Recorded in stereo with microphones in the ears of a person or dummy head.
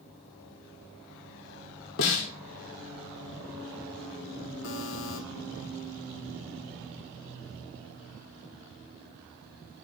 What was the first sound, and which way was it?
A snare drum, 60° left (ahead or behind).